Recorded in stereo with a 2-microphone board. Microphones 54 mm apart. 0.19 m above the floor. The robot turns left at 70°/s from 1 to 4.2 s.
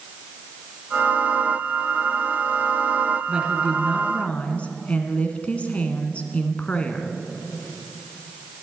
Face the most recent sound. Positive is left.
turn(degrees=145)